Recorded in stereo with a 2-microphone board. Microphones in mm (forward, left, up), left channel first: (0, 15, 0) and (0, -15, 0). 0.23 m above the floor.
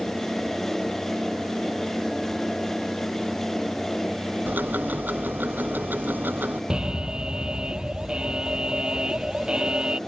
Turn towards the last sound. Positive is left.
turn(degrees=-30)  # may be behind; listen again after turning